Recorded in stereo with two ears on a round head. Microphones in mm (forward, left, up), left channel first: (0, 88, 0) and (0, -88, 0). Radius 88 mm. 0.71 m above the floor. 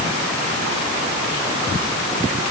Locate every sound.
Only background noise.